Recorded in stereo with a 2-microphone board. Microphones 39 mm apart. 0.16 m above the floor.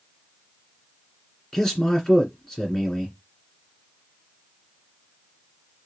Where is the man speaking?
15° left (ahead or behind), 1.8 m.